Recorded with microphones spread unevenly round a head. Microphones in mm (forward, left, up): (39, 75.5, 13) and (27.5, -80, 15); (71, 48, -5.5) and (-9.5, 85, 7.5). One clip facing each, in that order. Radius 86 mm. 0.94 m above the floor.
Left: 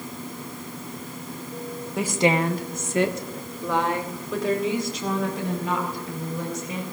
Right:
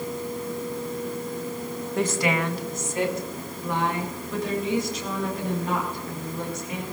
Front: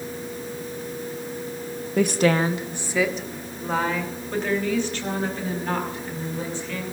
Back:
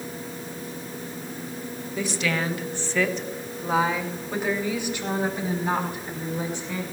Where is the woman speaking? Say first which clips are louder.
Left 3 dB, front 8 dB; 5° right, 1.0 m; by 6.8 s 85° left, 7 m.